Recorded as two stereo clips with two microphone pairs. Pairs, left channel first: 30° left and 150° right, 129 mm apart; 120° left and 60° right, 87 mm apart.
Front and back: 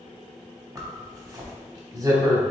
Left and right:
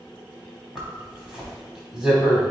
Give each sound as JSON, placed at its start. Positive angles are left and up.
{"t": 0.8, "sound": "a zipper", "azimuth_deg": -135, "distance_m": 1.1}